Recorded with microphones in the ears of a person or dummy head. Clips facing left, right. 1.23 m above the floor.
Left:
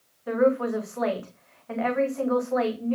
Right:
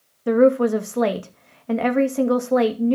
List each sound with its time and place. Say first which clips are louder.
0.3 s a woman speaking: right 7 dB; 50° right (ahead or behind), 2.5 m